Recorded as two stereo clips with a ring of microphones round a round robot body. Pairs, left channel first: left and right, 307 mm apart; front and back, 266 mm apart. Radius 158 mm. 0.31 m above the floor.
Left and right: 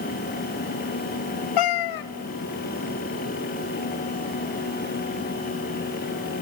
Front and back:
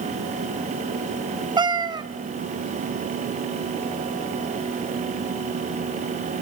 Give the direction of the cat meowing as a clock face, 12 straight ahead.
9 o'clock.